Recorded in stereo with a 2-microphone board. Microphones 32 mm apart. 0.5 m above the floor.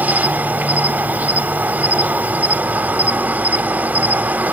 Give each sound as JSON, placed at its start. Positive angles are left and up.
{"t": 0.0, "sound": "an insect", "side_deg": -60, "distance_m": 1.0}